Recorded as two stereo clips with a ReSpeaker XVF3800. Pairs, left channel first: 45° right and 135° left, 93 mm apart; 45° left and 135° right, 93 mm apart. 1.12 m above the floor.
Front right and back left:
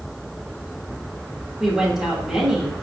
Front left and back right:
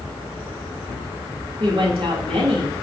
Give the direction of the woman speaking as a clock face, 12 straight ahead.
5 o'clock.